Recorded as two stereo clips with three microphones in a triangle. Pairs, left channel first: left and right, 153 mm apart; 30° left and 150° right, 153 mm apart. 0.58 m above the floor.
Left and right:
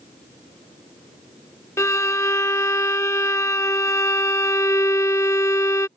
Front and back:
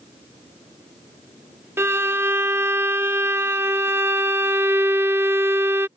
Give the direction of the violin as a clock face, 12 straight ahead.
7 o'clock.